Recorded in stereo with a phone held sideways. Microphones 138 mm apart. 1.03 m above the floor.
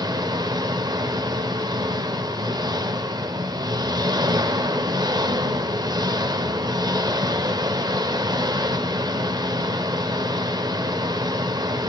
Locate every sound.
0.0 s an engine running: 30° right (ahead or behind), 0.9 m